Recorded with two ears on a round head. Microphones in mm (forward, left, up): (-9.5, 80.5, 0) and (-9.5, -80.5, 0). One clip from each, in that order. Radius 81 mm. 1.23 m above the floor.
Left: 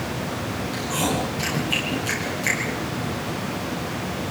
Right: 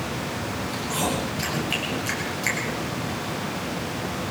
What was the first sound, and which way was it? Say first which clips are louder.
Chewing: left 2 dB; 15° right (ahead or behind).